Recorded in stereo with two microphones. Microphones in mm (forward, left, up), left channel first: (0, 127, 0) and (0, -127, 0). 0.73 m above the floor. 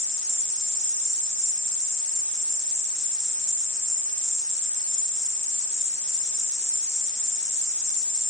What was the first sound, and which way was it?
An insect, 45° right (ahead or behind).